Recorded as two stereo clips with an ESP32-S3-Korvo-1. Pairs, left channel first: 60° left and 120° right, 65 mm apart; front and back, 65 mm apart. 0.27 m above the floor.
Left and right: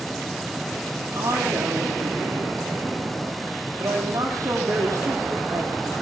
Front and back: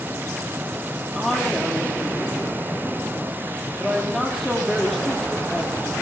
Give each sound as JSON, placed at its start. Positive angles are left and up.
{"t": 1.1, "sound": "a woman speaking", "azimuth_deg": -85, "distance_m": 9.0}